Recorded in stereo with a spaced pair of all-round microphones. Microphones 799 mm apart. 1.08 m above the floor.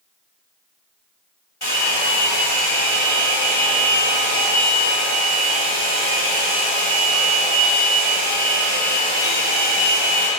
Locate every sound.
1.6 s a hair dryer: 40° left (ahead or behind), 4 m